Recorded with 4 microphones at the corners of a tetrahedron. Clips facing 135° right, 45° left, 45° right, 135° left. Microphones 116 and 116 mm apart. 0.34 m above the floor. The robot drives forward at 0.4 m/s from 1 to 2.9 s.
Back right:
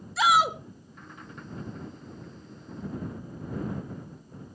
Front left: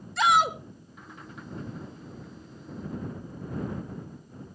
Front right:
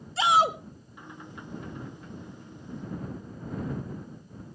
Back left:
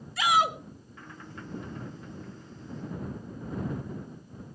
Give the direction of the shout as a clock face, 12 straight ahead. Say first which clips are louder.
Even, front right 2 dB; 2 o'clock.